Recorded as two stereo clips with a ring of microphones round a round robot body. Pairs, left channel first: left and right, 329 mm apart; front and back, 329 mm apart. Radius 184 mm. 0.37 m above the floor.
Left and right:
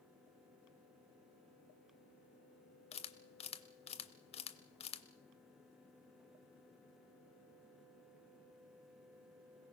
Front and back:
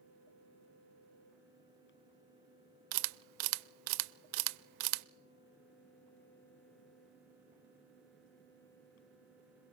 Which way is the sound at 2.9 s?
165° left.